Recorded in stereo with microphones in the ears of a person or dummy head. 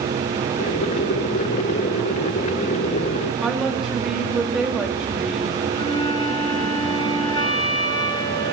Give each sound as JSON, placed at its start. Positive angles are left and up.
{"t": 0.6, "sound": "boiling", "side_deg": 25, "distance_m": 0.6}
{"t": 3.4, "sound": "a woman speaking", "side_deg": -5, "distance_m": 3.5}
{"t": 5.7, "sound": "a flute", "side_deg": 25, "distance_m": 6.5}